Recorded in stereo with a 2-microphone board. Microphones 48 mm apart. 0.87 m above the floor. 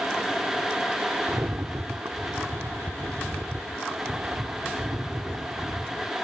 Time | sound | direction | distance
1.3 | a rattle | 70° right (ahead or behind) | ?